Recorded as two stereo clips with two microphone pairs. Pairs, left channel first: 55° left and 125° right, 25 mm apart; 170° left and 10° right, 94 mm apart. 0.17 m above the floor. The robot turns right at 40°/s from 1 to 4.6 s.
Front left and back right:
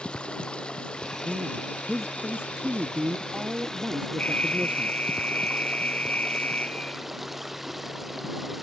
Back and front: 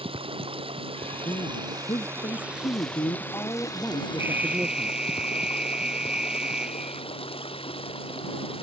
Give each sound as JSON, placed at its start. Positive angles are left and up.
{"t": 0.0, "sound": "running water", "azimuth_deg": 10}
{"t": 1.2, "sound": "a man speaking", "azimuth_deg": 140}
{"t": 4.2, "sound": "an alarm", "azimuth_deg": 55}